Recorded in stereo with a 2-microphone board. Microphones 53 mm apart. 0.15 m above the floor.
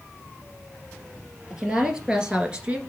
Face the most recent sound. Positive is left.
turn(degrees=-20)  # may be behind; listen again after turning